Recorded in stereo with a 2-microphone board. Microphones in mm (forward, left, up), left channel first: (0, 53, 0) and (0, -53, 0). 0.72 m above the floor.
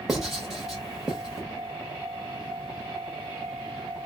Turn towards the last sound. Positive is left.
turn(degrees=-5)  # may be behind; listen again after turning